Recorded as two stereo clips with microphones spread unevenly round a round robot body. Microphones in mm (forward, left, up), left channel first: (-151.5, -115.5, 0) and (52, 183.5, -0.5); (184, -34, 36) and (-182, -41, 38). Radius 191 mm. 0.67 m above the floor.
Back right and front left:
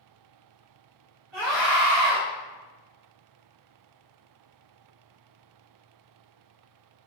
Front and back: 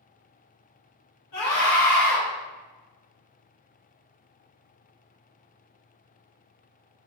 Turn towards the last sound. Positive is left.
turn(degrees=5)